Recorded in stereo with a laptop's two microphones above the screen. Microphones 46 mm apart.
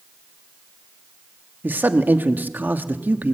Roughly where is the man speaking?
Right.